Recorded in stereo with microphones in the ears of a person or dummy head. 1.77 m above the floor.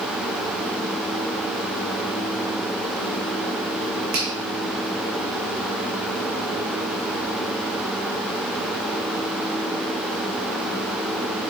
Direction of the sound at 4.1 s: 45° right (ahead or behind).